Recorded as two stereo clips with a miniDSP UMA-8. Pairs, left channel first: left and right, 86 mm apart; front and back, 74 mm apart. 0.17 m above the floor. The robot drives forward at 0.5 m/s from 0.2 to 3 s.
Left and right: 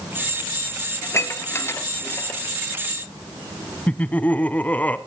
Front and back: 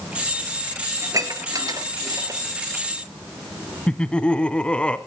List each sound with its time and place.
1.0 s dishes clattering: 145° left, 2 m; by 2.4 s 155° left, 2.5 m
3.9 s laughter: 50° left, 1.0 m